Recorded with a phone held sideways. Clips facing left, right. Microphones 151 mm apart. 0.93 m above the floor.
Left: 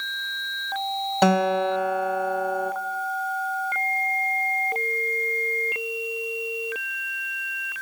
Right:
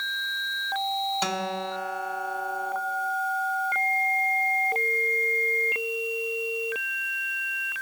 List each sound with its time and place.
1.2 s a guitar: 55° left (ahead or behind), 1.2 m